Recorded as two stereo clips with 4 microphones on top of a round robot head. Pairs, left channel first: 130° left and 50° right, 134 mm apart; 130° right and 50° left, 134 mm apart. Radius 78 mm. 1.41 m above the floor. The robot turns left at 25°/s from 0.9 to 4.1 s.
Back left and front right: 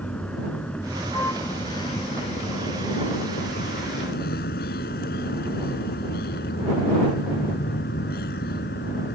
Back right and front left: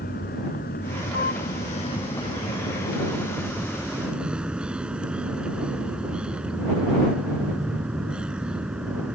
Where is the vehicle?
150° right; by 9.1 s 130° left.